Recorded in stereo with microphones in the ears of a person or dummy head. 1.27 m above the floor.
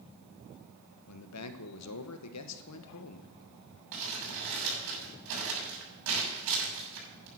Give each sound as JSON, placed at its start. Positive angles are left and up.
{"t": 1.1, "sound": "a man speaking", "side_deg": 80, "distance_m": 1.2}
{"t": 3.9, "sound": "crumpling", "side_deg": -75, "distance_m": 7.0}